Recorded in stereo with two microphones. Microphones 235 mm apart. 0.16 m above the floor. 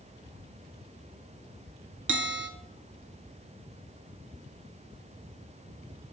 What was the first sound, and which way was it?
A bell, 60° right (ahead or behind).